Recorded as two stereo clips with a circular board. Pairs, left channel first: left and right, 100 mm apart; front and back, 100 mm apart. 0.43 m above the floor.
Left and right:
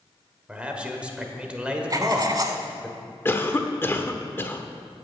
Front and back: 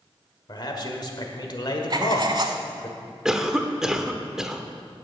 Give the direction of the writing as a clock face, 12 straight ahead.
5 o'clock.